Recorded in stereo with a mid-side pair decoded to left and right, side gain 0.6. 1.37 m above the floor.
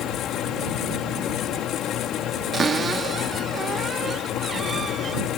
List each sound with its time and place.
0.0 s a fan: 55° left
2.5 s a cupboard door: 35° right